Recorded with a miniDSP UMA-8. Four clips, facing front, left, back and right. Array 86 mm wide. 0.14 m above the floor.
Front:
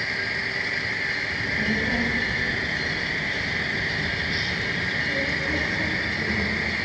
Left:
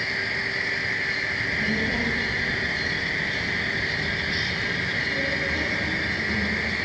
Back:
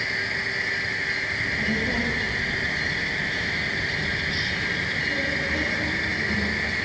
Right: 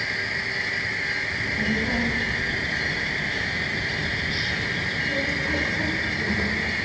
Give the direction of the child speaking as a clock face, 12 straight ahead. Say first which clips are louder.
Right 1 dB, front 1 dB; 2 o'clock.